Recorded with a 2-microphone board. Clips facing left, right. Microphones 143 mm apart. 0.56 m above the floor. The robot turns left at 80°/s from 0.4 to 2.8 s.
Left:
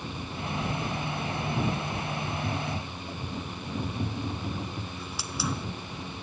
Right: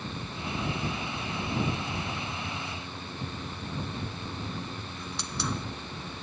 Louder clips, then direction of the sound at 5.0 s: Right 1 dB; 5° left (ahead or behind).